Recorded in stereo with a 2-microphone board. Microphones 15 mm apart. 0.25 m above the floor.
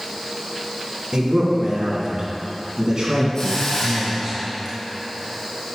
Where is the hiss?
40° left (ahead or behind), 1.9 m.